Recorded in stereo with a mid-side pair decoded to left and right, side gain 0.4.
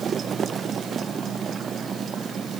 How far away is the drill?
I don't hear a drill.